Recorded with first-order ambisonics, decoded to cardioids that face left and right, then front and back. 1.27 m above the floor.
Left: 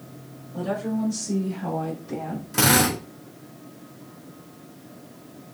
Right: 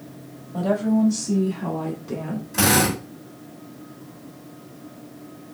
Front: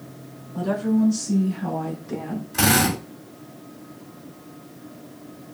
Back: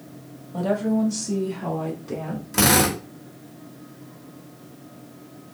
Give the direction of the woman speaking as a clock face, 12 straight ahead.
5 o'clock.